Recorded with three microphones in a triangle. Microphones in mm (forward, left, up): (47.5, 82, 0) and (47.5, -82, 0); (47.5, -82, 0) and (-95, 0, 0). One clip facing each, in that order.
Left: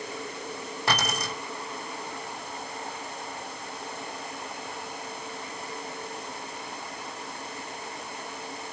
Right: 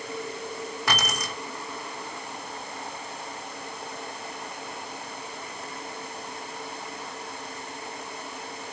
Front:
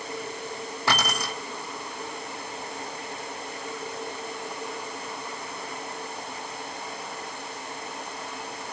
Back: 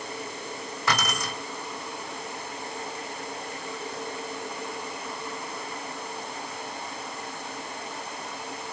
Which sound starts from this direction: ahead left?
Keys jangling, at 0.9 s.